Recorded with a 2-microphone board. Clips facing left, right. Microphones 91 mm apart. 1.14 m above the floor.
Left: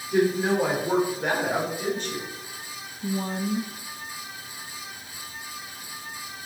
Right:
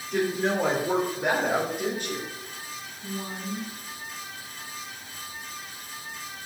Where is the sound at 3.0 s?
35° left (ahead or behind), 0.7 m.